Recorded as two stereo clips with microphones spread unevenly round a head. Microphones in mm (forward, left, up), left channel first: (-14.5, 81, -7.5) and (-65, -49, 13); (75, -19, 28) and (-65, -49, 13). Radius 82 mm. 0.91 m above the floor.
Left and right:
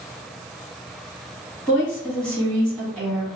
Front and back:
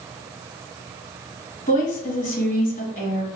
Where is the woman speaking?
10° right, 1.6 m.